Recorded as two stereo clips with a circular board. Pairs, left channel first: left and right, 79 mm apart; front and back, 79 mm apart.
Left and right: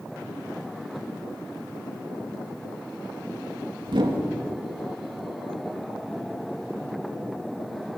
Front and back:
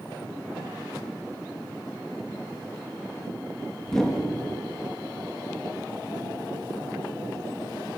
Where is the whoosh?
80° right, 2.5 m.